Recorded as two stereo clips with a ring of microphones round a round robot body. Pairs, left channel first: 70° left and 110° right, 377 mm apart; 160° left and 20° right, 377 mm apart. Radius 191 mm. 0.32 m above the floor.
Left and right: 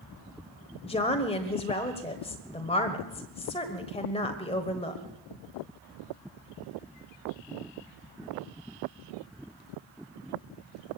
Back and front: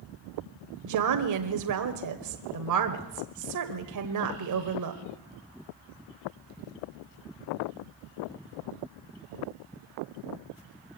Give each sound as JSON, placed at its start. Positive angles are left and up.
{"t": 0.8, "sound": "a woman speaking", "azimuth_deg": -5, "distance_m": 1.4}